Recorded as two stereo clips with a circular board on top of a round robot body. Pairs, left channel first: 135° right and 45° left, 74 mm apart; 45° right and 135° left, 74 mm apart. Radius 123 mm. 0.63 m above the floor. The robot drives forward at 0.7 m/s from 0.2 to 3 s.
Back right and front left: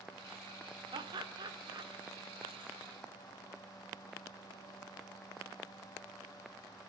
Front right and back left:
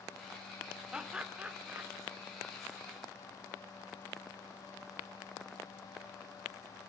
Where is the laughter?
55° left, 2.5 m; by 1.9 s 70° left, 2 m.